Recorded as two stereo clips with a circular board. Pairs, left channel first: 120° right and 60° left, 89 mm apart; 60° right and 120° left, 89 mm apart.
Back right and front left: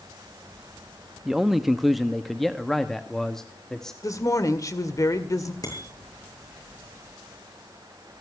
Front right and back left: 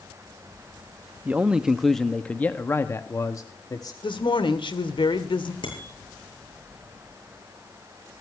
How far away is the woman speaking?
About 2.0 m.